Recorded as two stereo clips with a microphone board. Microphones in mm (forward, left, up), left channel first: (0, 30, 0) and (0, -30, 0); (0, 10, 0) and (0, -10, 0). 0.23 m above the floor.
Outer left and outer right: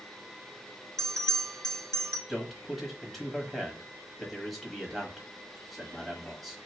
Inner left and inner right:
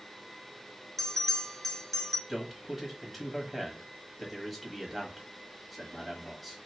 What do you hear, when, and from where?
1.0 s a bell: 10° left (ahead or behind), 1.0 m
2.3 s a man speaking: centre (ahead or behind), 1.2 m